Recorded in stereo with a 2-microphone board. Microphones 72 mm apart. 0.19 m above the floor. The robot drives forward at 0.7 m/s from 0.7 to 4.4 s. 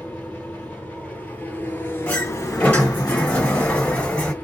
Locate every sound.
0.0 s an engine running: 15° left (ahead or behind), 1.7 m; by 4.4 s 25° left (ahead or behind), 1.1 m
2.1 s a sliding door: 15° left (ahead or behind), 1.9 m